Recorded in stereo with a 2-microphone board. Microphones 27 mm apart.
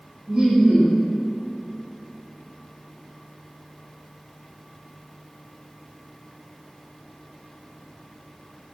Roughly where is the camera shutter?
No camera shutter in this recording.